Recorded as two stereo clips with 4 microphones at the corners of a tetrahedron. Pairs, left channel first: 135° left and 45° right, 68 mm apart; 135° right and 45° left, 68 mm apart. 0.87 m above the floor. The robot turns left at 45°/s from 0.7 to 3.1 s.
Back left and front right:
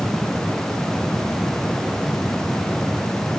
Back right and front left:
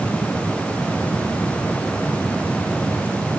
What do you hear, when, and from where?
Only background noise.